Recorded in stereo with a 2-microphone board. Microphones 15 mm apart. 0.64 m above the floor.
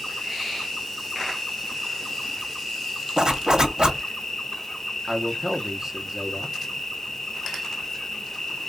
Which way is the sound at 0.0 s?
35° left (ahead or behind).